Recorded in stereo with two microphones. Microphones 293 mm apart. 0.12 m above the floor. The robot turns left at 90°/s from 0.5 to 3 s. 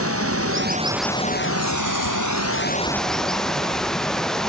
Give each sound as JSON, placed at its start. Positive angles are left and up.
{"t": 0.0, "sound": "running water", "azimuth_deg": -135}